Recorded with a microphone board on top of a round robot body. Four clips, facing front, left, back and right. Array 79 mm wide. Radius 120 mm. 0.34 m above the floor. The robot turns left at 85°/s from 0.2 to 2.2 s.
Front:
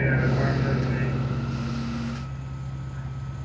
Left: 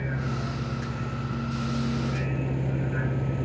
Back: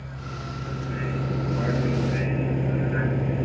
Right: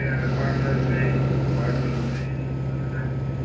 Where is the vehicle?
15° right; by 3.5 s 175° left.